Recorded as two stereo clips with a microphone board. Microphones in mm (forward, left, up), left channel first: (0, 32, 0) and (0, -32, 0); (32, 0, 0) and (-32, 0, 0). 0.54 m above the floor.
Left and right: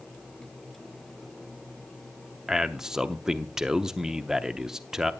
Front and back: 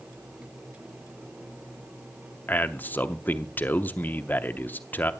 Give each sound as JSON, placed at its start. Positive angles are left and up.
{"t": 2.5, "sound": "a man speaking", "azimuth_deg": -15, "distance_m": 0.7}